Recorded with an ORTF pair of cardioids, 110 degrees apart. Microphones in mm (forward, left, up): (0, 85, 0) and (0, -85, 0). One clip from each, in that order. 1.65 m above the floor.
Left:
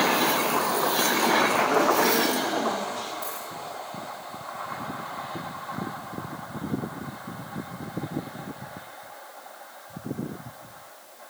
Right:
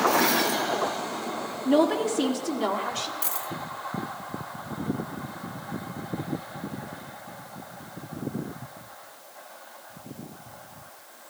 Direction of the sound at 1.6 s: 65° right.